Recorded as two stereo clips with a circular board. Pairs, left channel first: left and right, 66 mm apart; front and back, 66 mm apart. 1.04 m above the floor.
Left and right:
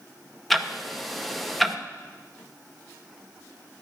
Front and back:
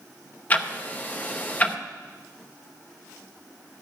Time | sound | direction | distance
0.5 | ticking | 10° left | 0.7 m